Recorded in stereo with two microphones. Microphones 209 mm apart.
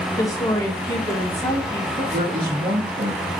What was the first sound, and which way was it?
A woman speaking, 15° left (ahead or behind).